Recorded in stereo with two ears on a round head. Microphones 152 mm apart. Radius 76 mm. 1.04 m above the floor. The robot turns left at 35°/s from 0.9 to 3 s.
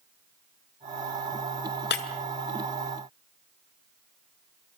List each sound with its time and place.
1.9 s breaking glass: 65° left (ahead or behind), 1.9 m; by 2.0 s 60° left (ahead or behind), 1.9 m